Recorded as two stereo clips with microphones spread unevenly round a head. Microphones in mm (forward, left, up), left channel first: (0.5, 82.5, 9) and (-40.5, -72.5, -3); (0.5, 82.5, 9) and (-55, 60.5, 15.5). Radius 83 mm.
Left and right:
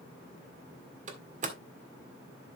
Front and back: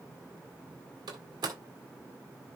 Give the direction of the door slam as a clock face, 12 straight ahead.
5 o'clock.